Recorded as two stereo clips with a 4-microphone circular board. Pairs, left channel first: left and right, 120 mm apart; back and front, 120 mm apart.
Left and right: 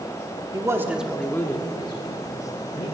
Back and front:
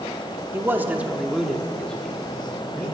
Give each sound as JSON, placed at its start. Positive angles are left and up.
{"t": 0.5, "sound": "a man speaking", "azimuth_deg": -55, "distance_m": 0.8}